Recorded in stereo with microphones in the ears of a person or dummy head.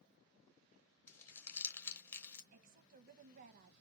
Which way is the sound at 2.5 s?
50° right (ahead or behind).